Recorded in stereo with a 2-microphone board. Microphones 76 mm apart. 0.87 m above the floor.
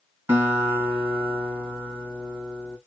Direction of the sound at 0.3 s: 30° right (ahead or behind).